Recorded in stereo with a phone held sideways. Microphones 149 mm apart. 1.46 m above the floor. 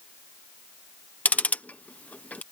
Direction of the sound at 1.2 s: 10° left (ahead or behind).